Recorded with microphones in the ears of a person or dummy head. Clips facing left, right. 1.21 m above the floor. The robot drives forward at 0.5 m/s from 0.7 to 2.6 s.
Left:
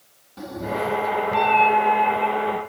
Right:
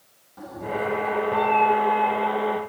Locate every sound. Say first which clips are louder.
0.4 s a cat meowing: left 2 dB; 45° left (ahead or behind), 0.8 m; by 2.6 s 35° left (ahead or behind), 1.0 m